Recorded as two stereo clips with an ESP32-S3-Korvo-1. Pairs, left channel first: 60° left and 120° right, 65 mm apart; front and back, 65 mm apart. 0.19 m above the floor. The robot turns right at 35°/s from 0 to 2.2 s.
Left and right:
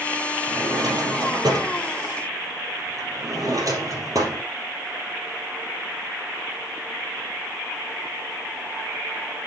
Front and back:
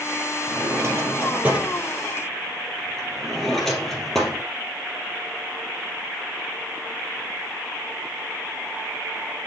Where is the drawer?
145° right, 2.5 m; by 4.5 s 85° right, 2.5 m.